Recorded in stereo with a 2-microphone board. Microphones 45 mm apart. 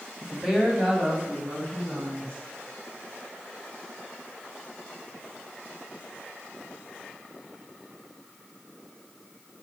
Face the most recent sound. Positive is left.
turn(degrees=-55)  # may be behind; listen again after turning